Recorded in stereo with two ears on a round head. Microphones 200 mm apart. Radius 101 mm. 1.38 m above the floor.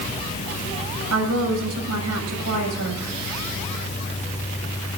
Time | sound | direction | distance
1.1 | a woman speaking | 80° right | 8 m